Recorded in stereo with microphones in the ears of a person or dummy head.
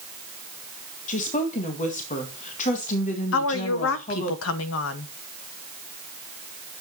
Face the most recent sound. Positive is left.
turn(degrees=70)  # may be behind; listen again after turning